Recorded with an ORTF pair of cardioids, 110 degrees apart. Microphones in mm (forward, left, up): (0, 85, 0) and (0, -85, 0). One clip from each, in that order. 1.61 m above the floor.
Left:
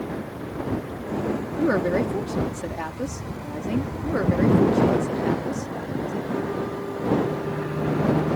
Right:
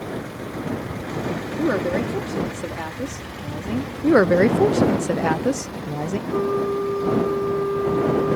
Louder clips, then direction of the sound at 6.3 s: Right 6 dB; 60° right.